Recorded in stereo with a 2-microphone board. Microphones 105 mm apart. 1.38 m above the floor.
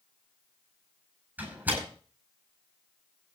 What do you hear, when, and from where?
1.4 s a door slam: 20° right (ahead or behind), 10 m